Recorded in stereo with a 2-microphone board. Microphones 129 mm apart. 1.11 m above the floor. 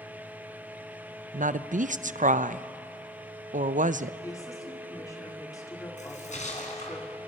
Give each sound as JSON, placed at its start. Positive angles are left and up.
{"t": 1.3, "sound": "a woman speaking", "side_deg": -85, "distance_m": 0.5}
{"t": 4.2, "sound": "a woman speaking", "side_deg": 25, "distance_m": 3.5}
{"t": 6.0, "sound": "a splash", "side_deg": 70, "distance_m": 3.5}